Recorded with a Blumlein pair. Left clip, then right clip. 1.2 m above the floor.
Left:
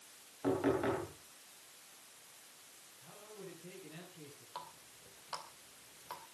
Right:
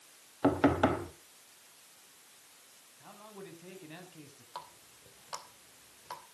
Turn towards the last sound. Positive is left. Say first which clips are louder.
# right 3 dB
turn(degrees=-10)